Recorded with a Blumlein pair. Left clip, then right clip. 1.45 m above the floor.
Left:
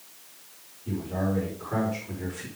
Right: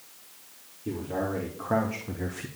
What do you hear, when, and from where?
0.8 s a man speaking: 60° right, 3 m; by 2.5 s 20° right, 1.2 m